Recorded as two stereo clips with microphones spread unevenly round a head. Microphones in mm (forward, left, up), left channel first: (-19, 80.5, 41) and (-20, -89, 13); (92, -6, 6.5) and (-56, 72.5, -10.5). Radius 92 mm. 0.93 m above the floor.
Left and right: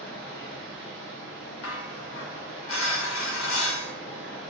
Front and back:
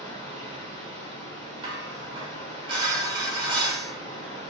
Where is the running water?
55° right, 0.8 m.